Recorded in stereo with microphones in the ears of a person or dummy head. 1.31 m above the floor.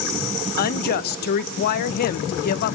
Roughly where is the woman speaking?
Left.